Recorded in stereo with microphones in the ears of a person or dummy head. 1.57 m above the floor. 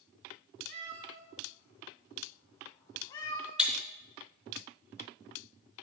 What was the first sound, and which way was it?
A cat meowing, 40° right (ahead or behind).